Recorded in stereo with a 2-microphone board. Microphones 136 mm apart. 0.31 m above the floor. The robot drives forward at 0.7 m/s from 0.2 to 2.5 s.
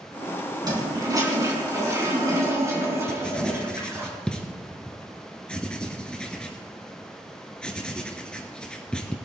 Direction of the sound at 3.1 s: 5° left (ahead or behind).